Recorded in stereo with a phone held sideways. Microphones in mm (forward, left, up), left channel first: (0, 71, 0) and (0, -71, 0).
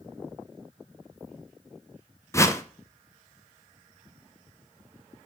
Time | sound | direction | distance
2.3 | a whoosh | 20° left (ahead or behind) | 0.6 m